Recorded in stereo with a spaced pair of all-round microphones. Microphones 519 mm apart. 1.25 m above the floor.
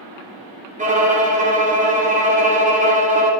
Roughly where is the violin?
Centre.